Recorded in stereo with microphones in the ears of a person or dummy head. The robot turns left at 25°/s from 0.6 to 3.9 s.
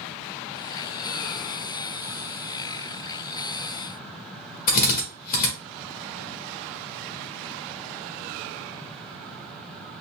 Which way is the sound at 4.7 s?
45° left (ahead or behind).